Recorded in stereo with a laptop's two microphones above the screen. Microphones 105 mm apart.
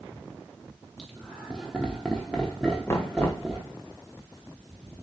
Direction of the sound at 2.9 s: 25° left (ahead or behind).